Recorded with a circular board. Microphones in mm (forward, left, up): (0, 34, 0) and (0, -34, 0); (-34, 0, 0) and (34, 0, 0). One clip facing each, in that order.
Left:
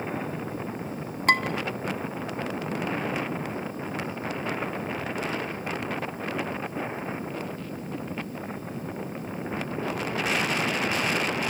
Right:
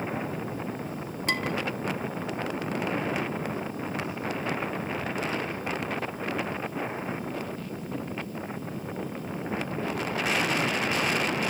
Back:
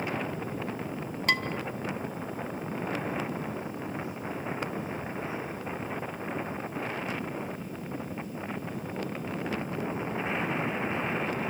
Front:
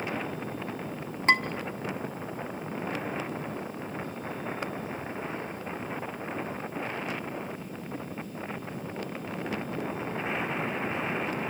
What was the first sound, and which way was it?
Dishes clattering, 55° left.